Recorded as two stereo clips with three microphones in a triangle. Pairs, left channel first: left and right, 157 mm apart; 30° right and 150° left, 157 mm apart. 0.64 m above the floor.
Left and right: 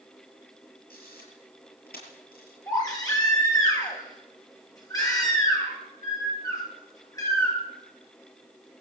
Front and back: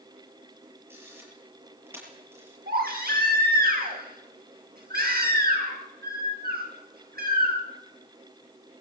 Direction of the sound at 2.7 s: 160° left.